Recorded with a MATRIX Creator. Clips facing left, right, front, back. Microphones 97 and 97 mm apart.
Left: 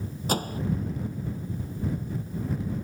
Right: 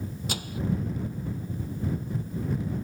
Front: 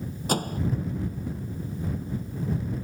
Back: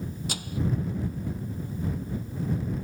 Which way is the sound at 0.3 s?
45° left.